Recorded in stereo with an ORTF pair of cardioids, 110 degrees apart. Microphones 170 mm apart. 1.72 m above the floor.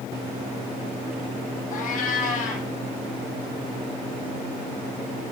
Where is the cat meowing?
60° left, 6 m.